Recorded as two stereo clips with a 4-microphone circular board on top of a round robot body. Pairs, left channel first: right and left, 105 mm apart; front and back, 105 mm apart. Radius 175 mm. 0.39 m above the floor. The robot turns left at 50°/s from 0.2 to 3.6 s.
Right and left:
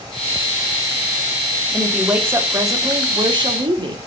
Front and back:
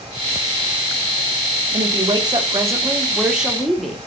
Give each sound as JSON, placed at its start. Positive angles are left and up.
{"t": 1.7, "sound": "a woman speaking", "azimuth_deg": 180, "distance_m": 1.1}